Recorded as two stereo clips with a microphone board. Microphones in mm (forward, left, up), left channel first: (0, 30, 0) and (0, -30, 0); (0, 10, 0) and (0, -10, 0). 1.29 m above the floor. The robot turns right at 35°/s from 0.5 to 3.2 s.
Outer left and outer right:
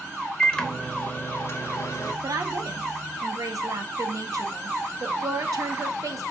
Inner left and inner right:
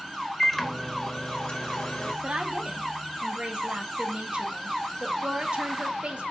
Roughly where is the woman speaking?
Right.